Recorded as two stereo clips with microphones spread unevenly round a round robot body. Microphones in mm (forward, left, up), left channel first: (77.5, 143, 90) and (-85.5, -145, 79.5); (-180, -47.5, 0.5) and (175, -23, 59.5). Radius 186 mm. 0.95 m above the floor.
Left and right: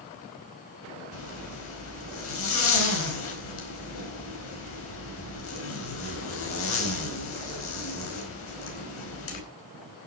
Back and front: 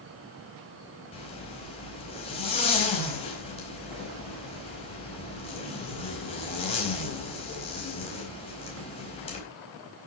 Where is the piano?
No piano in this recording.